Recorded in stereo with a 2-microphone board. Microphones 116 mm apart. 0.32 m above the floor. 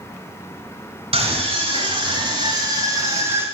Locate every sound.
1.1 s a scream: 55° right (ahead or behind), 2.5 m; by 3.5 s 20° right (ahead or behind), 2.0 m